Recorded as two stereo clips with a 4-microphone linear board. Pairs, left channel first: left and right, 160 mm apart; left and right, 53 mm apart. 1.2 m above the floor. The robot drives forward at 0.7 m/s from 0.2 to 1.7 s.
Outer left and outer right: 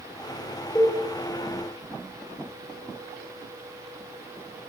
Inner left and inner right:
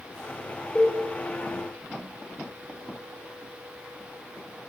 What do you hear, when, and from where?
0.8 s a cowbell: 15° left (ahead or behind), 3 m